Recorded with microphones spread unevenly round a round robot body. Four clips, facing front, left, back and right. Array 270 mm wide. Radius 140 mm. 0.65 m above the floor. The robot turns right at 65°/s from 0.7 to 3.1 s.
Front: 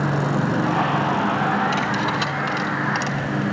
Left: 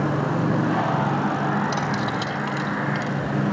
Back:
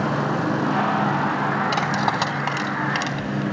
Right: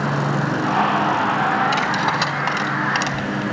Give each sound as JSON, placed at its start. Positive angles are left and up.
{"t": 1.7, "sound": "cutlery clinking", "azimuth_deg": 175, "distance_m": 3.5}